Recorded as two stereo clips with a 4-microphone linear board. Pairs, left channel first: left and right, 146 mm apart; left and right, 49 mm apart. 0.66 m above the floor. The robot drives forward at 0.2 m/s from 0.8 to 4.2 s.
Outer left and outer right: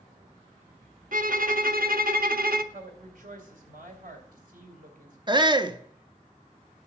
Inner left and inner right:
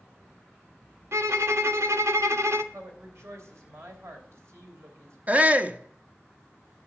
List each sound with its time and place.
1.1 s a violin: 70° right (ahead or behind), 0.8 m; by 2.6 s 80° right, 0.7 m
2.7 s a woman speaking: 65° right (ahead or behind), 3 m; by 5.2 s 70° right (ahead or behind), 3 m
5.3 s a shout: 30° right (ahead or behind), 0.7 m